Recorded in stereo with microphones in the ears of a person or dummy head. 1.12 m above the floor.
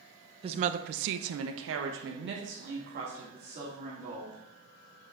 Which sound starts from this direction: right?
A woman speaking, at 0.4 s.